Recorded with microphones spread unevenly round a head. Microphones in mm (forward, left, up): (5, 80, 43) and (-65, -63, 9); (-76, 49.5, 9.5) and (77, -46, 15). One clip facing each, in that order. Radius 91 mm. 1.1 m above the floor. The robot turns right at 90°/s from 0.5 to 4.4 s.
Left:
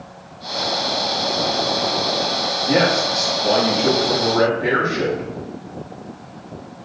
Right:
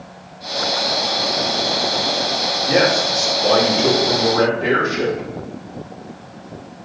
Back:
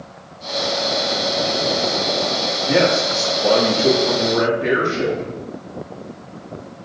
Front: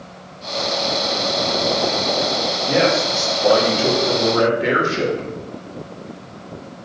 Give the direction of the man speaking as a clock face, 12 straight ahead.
7 o'clock.